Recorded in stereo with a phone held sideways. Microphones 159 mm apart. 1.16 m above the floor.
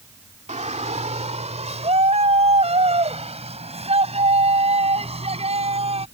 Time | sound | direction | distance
0.5 | a shout | 45° right (ahead or behind) | ?